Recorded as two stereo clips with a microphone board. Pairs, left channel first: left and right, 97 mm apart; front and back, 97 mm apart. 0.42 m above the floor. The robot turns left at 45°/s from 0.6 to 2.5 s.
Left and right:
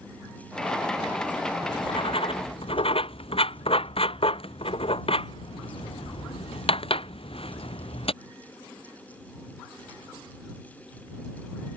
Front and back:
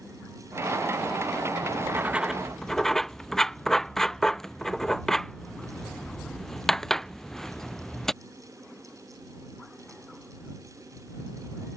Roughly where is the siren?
No siren in this recording.